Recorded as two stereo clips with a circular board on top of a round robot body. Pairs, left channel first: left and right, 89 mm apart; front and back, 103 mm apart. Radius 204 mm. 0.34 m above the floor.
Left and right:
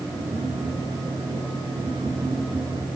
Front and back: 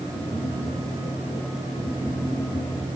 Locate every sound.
0.1 s tapping: 85° right, 6.5 m